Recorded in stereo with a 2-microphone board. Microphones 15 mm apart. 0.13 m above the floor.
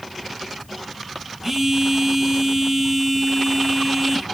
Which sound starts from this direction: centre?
A phone buzzing, at 1.4 s.